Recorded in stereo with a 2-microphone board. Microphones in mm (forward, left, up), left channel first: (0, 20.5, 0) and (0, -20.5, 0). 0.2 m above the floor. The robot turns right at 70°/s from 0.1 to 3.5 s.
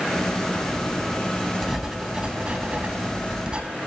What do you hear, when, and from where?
1.6 s writing: 175° right, 0.5 m; by 3.6 s 40° right, 0.5 m